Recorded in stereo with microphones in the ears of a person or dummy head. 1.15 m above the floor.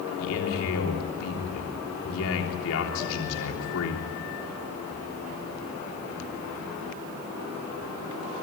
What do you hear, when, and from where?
0.2 s a man speaking: 75° left (ahead or behind), 3.5 m